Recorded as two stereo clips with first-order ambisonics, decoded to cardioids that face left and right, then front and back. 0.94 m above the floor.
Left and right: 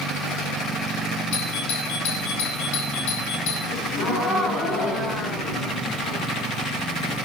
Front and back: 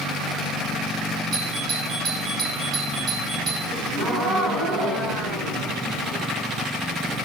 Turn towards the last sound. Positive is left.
turn(degrees=130)